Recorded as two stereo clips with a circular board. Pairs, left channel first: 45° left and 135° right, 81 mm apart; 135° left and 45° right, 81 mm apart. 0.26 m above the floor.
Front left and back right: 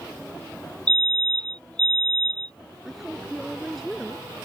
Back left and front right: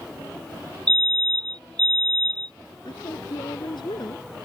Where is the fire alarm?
30° right.